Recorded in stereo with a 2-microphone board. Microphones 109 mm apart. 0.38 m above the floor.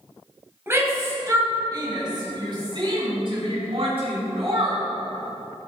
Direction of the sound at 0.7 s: 20° right (ahead or behind).